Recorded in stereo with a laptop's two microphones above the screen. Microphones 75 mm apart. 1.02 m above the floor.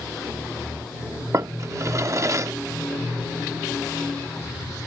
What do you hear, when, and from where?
1.3 s a drawer: 40° right (ahead or behind)